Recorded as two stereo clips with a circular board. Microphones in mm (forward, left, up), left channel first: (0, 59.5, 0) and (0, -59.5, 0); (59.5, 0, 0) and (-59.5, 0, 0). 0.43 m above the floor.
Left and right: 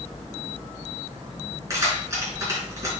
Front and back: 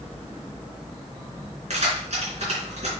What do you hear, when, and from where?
1.7 s keys jangling: 155° right, 4 m